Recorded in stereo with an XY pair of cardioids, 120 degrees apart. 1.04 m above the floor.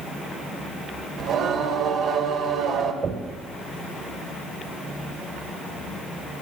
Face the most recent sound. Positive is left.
turn(degrees=-45)